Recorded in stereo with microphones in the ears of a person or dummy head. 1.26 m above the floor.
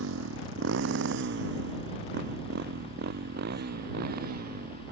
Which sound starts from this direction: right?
A motorcycle, at 0.0 s.